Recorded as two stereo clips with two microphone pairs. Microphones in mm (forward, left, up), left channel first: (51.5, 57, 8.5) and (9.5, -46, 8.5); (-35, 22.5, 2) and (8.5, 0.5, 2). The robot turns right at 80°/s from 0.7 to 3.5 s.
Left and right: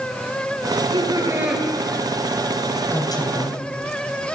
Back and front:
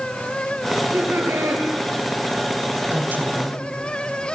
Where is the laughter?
90° right, 9 m; by 1.6 s 20° right, 9 m.